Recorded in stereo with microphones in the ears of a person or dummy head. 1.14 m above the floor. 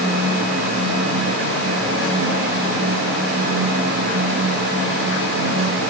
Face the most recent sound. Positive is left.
No sound to turn to.